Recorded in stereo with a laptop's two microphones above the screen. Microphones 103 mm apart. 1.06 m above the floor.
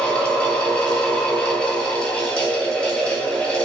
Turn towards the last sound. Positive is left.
turn(degrees=10)  # may be behind; listen again after turning